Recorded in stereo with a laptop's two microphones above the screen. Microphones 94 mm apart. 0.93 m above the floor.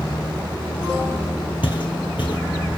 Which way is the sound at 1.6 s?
60° left (ahead or behind).